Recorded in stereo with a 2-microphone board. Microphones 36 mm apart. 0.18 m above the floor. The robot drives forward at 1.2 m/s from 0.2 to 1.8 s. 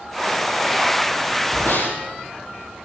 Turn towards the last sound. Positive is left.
turn(degrees=80)